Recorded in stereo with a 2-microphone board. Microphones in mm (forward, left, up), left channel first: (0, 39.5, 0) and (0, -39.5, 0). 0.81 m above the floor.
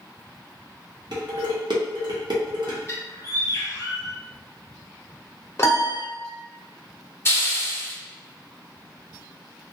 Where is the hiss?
30° left (ahead or behind), 0.5 m.